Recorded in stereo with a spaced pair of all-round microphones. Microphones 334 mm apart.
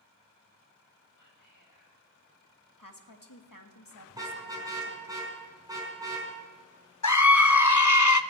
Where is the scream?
55° left (ahead or behind), 0.8 m.